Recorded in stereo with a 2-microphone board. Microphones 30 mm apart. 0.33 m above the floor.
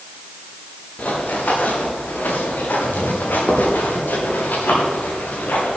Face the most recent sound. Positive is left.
turn(degrees=75)  # may be behind; listen again after turning